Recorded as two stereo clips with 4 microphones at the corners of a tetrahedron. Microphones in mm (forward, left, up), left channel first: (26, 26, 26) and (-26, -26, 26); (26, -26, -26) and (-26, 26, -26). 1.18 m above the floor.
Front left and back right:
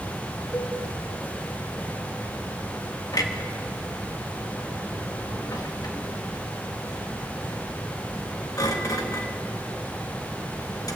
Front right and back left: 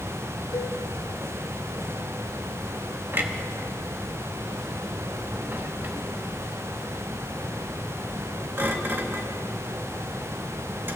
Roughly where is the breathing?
I don't hear breathing.